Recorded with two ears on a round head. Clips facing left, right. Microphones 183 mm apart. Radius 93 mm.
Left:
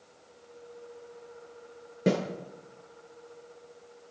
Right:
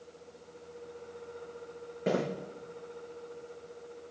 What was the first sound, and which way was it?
A snare drum, 50° left (ahead or behind).